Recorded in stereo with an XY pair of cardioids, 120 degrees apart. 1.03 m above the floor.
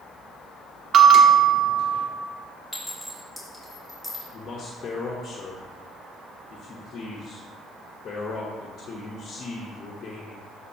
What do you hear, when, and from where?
0.9 s a bell: 50° right, 1.2 m
2.7 s a clink: 5° right, 3 m
4.3 s a man speaking: 45° left, 1.2 m